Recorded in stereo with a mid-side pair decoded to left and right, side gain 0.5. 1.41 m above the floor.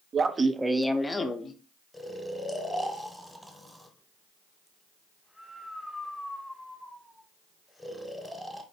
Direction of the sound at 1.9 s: Straight ahead.